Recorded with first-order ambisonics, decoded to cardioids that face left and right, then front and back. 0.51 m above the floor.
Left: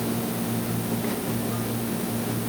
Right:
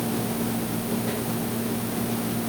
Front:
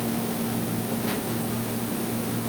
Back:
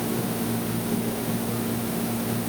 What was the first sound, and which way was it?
Only background noise.